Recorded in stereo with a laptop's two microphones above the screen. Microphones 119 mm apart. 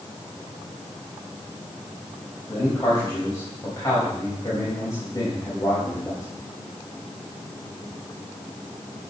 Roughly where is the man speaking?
Left.